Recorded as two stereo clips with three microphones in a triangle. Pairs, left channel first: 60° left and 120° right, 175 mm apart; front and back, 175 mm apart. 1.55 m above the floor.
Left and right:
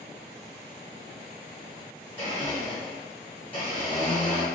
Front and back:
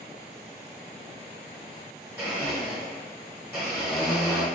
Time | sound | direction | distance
2.2 | a blender | 100° left | 1.6 m